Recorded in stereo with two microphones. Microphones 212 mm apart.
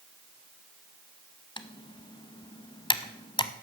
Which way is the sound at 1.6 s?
25° left (ahead or behind).